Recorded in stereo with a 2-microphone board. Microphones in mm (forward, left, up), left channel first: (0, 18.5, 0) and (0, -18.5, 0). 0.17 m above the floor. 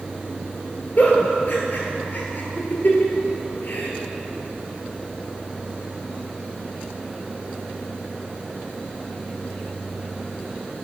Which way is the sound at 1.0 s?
55° left (ahead or behind).